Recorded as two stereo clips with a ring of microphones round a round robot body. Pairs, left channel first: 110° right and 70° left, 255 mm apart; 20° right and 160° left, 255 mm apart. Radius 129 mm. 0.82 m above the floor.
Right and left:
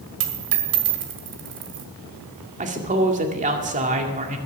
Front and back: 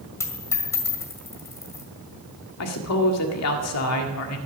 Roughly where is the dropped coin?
Ahead left.